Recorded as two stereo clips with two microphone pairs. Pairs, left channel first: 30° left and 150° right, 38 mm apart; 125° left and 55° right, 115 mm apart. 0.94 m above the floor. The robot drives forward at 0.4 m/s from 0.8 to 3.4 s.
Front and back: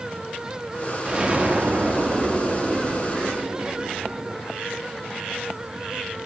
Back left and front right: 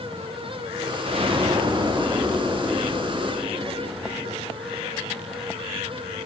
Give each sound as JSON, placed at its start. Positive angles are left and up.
{"t": 1.1, "sound": "an explosion", "azimuth_deg": -85, "distance_m": 0.8}